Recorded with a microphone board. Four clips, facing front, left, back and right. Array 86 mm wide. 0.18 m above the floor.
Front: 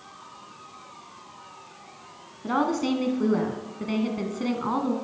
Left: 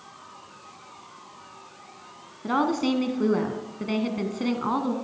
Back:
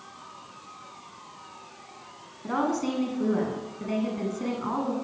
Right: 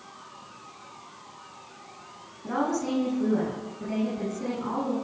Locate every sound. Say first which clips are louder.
2.4 s a woman speaking: left 4 dB, front 2 dB; 65° left, 1.5 m